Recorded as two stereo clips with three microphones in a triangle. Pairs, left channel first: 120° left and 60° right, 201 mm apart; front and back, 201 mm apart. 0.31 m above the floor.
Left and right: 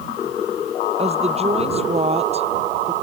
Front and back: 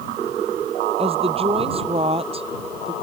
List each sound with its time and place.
1.0 s a woman speaking: 120° right